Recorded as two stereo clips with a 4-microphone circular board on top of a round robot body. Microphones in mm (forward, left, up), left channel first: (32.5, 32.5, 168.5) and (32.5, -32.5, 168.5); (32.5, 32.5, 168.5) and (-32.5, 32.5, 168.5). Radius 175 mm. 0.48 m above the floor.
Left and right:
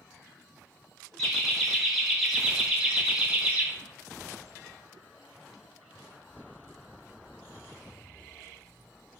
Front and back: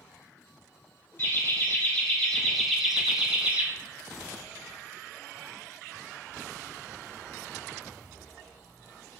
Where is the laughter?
10° left, 1.5 m; by 3.7 s 140° right, 1.4 m.